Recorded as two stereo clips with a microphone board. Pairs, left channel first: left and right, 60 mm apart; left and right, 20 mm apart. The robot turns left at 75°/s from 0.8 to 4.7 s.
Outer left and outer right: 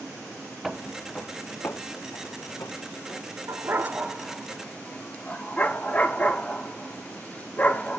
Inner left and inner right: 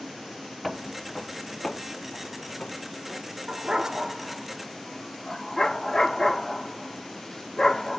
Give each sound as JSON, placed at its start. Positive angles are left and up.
{"t": 0.6, "sound": "footsteps", "side_deg": -5, "distance_m": 0.7}
{"t": 3.5, "sound": "a dog barking", "side_deg": -50, "distance_m": 1.1}